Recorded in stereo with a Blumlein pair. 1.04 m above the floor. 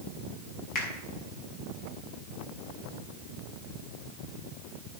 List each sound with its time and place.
0.8 s a finger snap: 35° left, 6 m